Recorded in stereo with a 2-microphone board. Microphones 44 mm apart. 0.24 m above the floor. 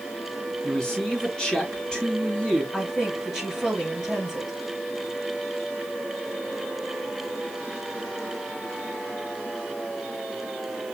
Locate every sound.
0.6 s a man speaking: 20° left (ahead or behind), 2.5 m
2.7 s a woman speaking: centre (ahead or behind), 4 m